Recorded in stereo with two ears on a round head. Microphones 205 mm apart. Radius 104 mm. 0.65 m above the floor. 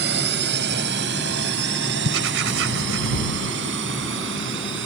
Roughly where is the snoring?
No snoring in this recording.